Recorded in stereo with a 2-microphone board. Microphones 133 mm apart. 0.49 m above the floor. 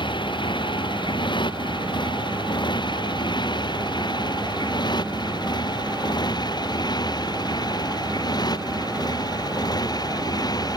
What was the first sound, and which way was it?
A motorcycle, 35° left (ahead or behind).